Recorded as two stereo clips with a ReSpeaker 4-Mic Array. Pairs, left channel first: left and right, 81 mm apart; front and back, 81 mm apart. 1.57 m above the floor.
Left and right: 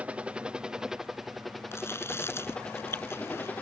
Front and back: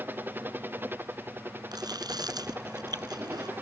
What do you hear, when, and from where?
0.0 s a helicopter: 145° right; by 3.6 s 140° left
1.7 s chewing: 150° left